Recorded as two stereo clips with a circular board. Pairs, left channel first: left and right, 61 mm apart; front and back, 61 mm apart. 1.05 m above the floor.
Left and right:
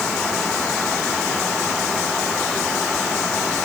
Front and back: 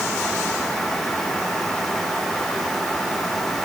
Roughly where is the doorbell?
I don't hear a doorbell.